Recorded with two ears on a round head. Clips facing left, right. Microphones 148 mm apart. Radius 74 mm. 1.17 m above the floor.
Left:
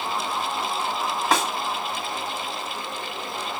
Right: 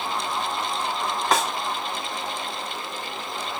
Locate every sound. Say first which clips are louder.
1.3 s a snare drum: even; centre (ahead or behind), 1.6 m